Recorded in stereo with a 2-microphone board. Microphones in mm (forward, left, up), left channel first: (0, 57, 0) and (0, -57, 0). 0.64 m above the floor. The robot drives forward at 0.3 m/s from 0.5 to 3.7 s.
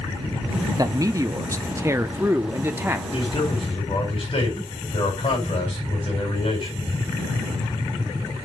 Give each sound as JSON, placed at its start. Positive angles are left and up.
{"t": 0.8, "sound": "a man speaking", "side_deg": -30, "distance_m": 0.6}
{"t": 3.1, "sound": "a man speaking", "side_deg": 50, "distance_m": 4.5}